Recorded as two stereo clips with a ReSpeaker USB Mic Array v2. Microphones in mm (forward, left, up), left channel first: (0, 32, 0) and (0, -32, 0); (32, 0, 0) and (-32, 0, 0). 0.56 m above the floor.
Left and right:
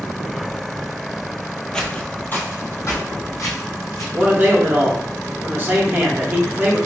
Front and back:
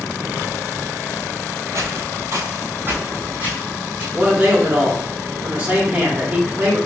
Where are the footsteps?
165° left, 0.8 m; by 4.0 s 110° left, 1.9 m.